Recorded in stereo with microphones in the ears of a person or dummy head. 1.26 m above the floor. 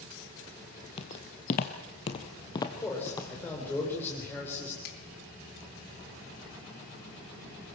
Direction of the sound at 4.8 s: 80° left.